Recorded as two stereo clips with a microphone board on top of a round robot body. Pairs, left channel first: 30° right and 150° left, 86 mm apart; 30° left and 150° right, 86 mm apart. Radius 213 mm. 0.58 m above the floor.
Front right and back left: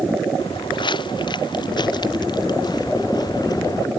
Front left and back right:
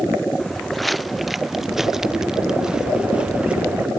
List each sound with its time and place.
0.4 s footsteps: 60° right; by 3.9 s 75° right